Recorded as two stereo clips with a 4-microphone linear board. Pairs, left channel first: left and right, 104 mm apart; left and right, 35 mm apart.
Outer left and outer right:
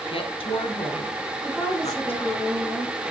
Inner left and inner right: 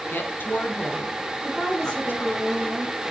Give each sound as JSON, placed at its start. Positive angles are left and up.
{"t": 0.1, "sound": "a woman speaking", "side_deg": 60, "distance_m": 2.5}
{"t": 1.4, "sound": "a woman speaking", "side_deg": 5, "distance_m": 4.0}